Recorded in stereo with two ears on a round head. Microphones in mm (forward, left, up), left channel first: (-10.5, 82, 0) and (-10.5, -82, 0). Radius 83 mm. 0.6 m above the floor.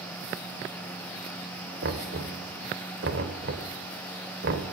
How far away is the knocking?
About 2.5 m.